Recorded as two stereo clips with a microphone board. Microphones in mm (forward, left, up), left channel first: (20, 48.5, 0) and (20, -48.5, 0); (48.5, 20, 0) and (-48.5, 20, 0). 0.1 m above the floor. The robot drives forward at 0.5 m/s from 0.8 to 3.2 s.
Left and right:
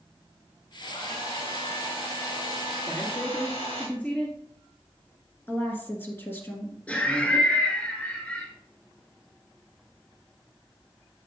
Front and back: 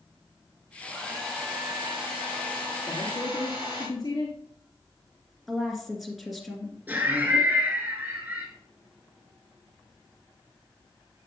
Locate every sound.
0.8 s a hair dryer: 95° left, 3.5 m; by 3.9 s 110° left, 4 m
2.9 s a man speaking: 20° left, 1.6 m
5.5 s a woman speaking: 95° left, 1.5 m
6.9 s laughter: 145° left, 1.1 m